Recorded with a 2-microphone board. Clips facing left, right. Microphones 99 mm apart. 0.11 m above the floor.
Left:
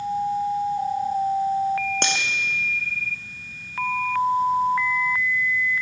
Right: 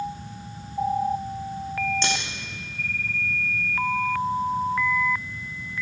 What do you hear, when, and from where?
2.0 s cutlery clinking: 60° left (ahead or behind), 3.5 m